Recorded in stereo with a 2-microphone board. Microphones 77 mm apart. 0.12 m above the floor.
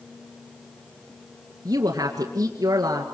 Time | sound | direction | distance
1.6 | a woman speaking | 50° right (ahead or behind) | 2 m